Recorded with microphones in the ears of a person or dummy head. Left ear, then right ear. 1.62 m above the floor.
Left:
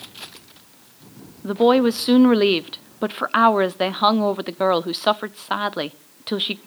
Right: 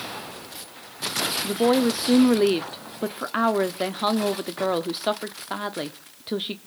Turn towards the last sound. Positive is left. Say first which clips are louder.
# left 7 dB
turn(degrees=20)  # may be behind; listen again after turning